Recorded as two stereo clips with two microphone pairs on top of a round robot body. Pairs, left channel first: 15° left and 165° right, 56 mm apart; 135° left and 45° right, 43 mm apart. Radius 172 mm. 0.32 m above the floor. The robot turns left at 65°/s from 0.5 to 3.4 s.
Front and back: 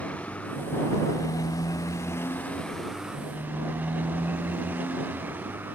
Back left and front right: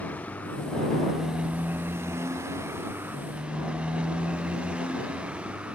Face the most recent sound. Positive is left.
turn(degrees=-110)